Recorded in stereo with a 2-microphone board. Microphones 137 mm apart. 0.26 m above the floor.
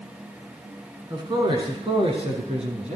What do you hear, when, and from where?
1.1 s a man speaking: 35° right (ahead or behind), 2.5 m; by 3.0 s 55° right (ahead or behind), 2.0 m